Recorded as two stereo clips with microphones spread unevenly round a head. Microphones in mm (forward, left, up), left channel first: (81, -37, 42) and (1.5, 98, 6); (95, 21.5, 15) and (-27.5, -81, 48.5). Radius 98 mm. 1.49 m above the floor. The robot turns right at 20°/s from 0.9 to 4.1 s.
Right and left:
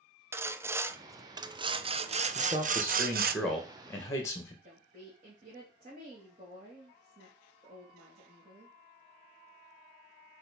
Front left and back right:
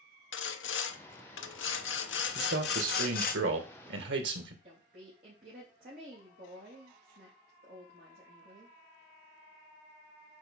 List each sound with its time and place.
0.3 s sawing: 40° left, 0.8 m; by 3.4 s 90° left, 0.8 m
2.4 s a man speaking: 170° right, 2.0 m; by 4.5 s 135° right, 2.0 m
4.6 s a woman speaking: 175° left, 3 m